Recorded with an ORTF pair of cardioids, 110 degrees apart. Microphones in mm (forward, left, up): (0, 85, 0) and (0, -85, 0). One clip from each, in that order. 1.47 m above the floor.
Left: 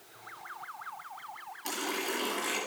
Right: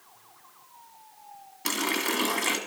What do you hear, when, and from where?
1.6 s a running tap: 60° right, 1.7 m